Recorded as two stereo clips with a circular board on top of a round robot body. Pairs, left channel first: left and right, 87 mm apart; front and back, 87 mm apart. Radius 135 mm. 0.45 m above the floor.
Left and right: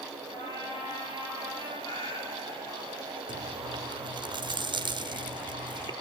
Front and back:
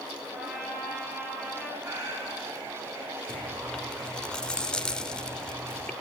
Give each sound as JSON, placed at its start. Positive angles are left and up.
{"t": 0.3, "sound": "a trumpet", "azimuth_deg": 95, "distance_m": 7.5}
{"t": 1.8, "sound": "a cat meowing", "azimuth_deg": 125, "distance_m": 3.5}
{"t": 3.3, "sound": "chewing", "azimuth_deg": -80, "distance_m": 0.9}